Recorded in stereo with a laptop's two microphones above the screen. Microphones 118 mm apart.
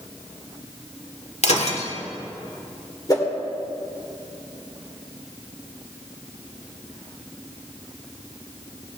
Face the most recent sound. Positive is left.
turn(degrees=30)  # may be behind; listen again after turning